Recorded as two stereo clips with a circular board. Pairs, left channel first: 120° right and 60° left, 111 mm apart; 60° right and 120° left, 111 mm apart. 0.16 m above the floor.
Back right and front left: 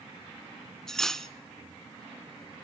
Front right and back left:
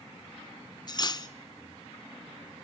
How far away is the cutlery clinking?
About 0.8 m.